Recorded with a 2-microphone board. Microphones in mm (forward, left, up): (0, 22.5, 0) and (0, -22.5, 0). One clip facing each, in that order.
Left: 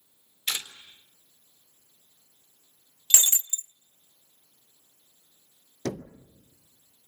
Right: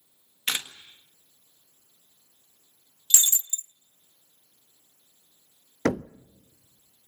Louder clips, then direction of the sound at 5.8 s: Right 7 dB; 70° right (ahead or behind).